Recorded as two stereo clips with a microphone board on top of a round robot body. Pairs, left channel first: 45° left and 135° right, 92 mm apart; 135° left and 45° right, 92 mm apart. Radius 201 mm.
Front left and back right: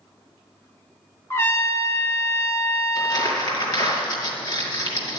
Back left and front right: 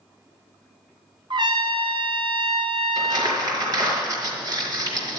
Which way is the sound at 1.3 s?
15° right.